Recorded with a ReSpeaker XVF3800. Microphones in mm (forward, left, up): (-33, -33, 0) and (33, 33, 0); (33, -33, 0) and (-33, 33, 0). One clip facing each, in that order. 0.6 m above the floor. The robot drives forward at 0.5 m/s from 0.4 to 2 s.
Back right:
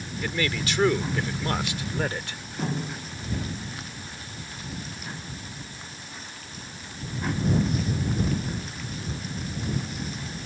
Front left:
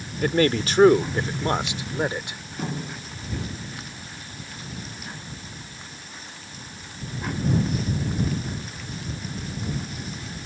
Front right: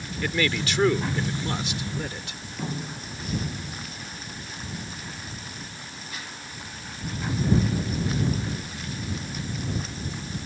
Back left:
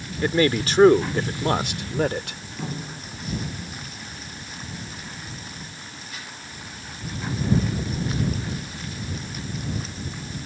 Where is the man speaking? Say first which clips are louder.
Front left 8 dB, back left 6 dB; 85° left; by 2.4 s 115° left.